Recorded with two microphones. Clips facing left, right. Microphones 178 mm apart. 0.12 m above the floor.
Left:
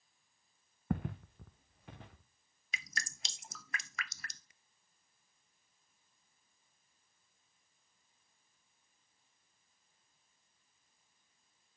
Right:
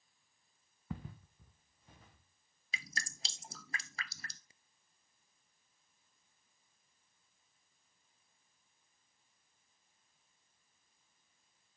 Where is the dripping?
30° right (ahead or behind), 0.6 m.